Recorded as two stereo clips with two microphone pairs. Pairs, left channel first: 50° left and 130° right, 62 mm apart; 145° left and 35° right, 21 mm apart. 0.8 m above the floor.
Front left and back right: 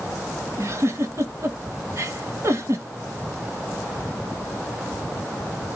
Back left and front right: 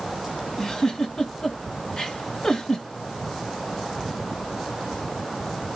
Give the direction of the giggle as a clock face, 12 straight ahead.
5 o'clock.